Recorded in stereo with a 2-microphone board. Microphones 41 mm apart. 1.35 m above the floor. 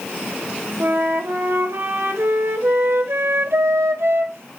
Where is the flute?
85° right, 1.6 m.